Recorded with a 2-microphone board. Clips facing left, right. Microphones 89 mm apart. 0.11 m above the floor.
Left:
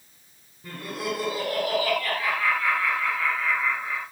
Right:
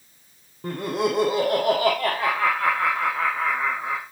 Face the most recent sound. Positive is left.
turn(degrees=-65)  # may be behind; listen again after turning